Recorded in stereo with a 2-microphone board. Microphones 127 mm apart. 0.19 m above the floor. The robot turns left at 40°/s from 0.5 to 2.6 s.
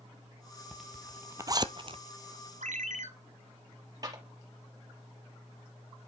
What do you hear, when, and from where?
0.7 s a zipper: centre (ahead or behind), 0.8 m; by 2.0 s 50° right (ahead or behind), 0.8 m
2.6 s a ringtone: 75° right (ahead or behind), 1.5 m
4.0 s a clap: 30° right (ahead or behind), 4.5 m